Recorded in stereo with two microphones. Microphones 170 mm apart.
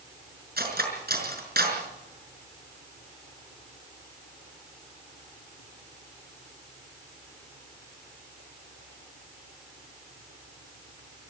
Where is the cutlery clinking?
65° right (ahead or behind), 5.5 m.